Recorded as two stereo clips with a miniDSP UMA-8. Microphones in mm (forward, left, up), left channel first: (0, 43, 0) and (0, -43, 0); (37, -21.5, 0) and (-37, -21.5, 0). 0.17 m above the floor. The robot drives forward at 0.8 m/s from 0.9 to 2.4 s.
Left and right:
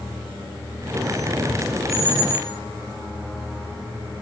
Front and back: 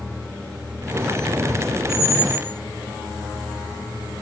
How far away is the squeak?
About 1.5 m.